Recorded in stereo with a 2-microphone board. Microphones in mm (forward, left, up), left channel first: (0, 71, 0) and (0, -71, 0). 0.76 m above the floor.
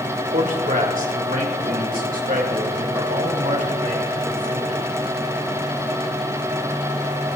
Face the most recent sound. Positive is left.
turn(degrees=-80)